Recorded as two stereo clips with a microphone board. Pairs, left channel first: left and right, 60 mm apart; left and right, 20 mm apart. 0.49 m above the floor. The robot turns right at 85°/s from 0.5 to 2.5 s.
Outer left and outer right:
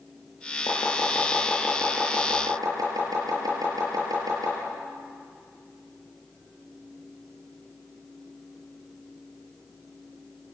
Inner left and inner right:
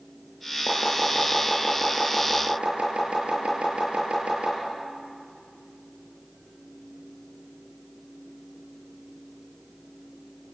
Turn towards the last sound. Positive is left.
turn(degrees=-80)